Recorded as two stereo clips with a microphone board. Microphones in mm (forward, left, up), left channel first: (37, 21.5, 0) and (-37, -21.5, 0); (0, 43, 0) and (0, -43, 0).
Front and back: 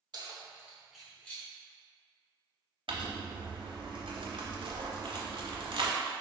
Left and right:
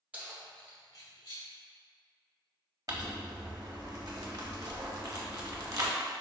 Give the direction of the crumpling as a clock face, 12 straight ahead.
5 o'clock.